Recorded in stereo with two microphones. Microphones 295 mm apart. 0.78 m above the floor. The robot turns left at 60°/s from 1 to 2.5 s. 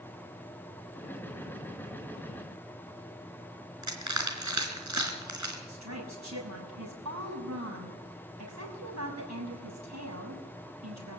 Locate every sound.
3.8 s crushing: 85° right, 4 m
5.7 s a woman speaking: 70° right (ahead or behind), 6 m